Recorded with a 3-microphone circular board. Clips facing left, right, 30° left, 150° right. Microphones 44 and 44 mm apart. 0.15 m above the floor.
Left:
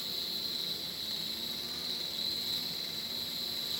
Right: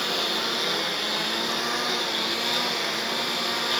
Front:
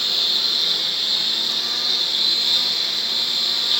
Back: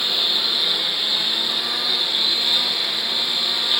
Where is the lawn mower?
75° right.